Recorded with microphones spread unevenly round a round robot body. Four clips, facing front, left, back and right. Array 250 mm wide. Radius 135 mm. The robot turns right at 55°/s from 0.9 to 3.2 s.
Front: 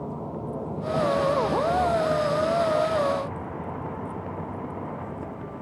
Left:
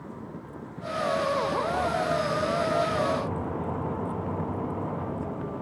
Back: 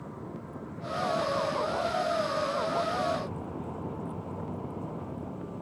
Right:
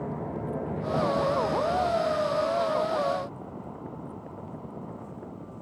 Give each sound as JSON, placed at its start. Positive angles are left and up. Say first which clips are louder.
{"t": 0.0, "sound": "a vehicle", "louder": "right 7 dB, front 8 dB", "azimuth_deg": -45}